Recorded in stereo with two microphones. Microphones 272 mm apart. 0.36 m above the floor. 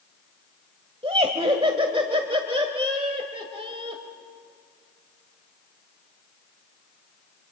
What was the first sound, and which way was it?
Laughter, 20° right (ahead or behind).